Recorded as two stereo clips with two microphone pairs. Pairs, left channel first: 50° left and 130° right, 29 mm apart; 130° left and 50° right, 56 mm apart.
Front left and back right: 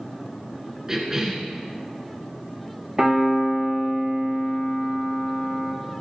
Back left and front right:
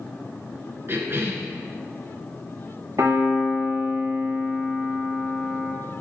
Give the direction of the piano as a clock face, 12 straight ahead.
2 o'clock.